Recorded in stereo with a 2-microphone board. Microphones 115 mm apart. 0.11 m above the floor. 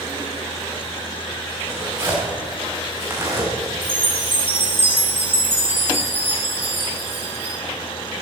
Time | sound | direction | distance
1.6 | tearing paper | 25° right (ahead or behind) | 5 m
3.8 | a chime | 20° right (ahead or behind) | 4 m